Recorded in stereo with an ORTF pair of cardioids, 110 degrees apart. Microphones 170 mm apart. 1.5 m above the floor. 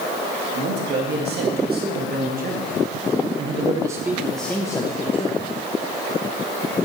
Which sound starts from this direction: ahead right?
A man speaking, at 0.5 s.